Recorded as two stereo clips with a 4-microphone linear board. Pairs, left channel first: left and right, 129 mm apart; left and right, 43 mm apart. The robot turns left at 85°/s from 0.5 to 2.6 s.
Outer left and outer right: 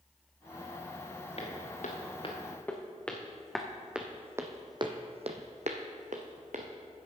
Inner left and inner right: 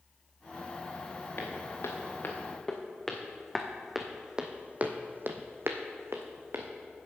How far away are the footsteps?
About 2.5 m.